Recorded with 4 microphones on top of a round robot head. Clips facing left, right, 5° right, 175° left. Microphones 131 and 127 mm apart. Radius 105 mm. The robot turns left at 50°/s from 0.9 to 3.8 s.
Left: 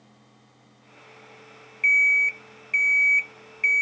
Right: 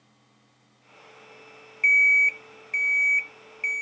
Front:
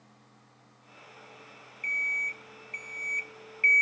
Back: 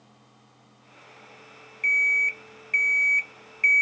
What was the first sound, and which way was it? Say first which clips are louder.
An alarm clock: right 1 dB, back 8 dB; 145° right.